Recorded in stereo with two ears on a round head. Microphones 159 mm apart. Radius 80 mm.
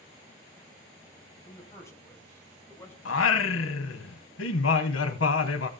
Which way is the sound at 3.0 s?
90° left.